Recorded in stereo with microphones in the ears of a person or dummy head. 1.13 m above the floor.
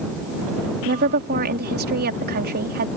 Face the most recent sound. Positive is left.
turn(degrees=-55)  # may be behind; listen again after turning